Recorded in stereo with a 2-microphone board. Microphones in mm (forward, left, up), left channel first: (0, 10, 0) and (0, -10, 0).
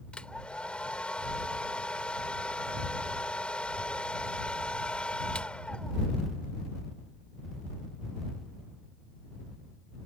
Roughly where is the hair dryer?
Left.